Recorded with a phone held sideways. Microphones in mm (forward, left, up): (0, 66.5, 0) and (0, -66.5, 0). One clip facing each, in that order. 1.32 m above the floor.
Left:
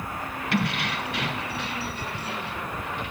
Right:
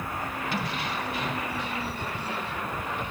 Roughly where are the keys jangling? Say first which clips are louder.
Left 7 dB; left.